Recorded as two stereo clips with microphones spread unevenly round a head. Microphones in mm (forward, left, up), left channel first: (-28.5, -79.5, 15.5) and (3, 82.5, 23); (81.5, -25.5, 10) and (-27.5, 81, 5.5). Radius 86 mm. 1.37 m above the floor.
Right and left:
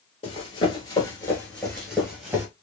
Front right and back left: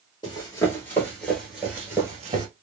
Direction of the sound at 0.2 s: 70° right.